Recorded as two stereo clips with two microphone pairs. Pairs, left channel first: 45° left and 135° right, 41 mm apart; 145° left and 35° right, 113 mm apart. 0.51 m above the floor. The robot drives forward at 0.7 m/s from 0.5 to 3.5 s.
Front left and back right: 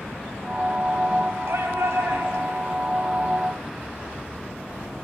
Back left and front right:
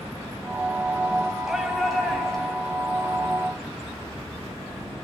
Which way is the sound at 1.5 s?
125° right.